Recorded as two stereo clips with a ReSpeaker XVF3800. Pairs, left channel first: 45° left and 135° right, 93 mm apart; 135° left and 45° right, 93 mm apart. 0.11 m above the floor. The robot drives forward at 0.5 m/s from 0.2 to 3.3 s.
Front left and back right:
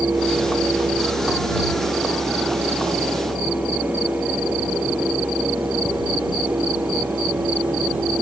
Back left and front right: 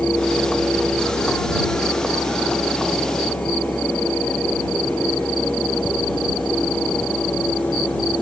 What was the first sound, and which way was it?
Only background noise.